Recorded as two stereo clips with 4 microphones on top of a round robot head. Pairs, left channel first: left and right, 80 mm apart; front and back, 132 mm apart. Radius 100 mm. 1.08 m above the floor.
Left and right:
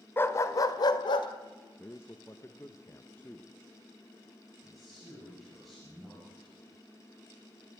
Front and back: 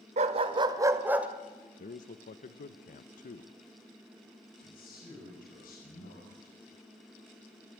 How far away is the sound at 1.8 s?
About 0.7 m.